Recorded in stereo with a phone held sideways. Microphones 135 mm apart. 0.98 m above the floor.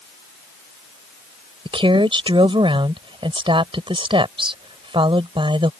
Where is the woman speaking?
40° right (ahead or behind).